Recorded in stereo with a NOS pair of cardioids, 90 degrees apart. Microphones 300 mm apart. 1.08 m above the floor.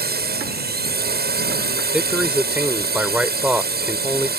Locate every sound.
0.0 s a drone: 35° right
1.9 s a man speaking: 5° right